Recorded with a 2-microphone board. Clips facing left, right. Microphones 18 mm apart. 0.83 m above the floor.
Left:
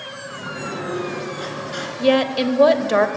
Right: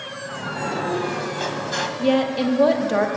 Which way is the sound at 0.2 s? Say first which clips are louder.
Right 3 dB; 70° right (ahead or behind).